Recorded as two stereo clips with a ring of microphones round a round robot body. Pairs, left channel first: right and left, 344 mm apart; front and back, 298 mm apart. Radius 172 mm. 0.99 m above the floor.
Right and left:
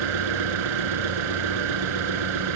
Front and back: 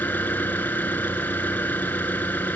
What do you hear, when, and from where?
0.0 s an engine running: 85° left